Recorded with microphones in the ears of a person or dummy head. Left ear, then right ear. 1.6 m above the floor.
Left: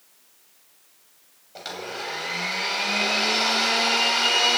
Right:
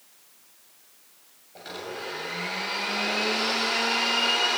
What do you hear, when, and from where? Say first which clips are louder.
1.6 s a blender: left 3 dB; 40° left (ahead or behind), 7 m